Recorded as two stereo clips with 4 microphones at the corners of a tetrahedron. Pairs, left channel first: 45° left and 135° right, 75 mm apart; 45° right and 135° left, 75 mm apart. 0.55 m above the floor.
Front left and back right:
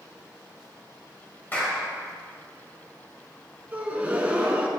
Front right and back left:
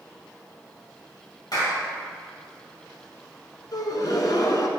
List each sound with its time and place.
1.5 s a clap: 20° right, 2.5 m
3.7 s a gasp: 70° right, 0.9 m